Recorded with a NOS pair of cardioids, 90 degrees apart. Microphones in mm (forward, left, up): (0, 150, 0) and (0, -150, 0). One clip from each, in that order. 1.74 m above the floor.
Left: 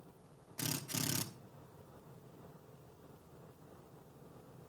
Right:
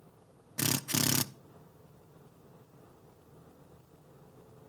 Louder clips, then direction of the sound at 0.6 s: Right 9 dB; 55° right.